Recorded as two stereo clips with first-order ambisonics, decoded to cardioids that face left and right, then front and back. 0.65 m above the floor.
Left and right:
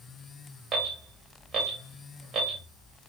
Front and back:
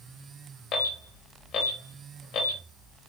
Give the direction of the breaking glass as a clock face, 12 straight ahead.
I don't hear breaking glass.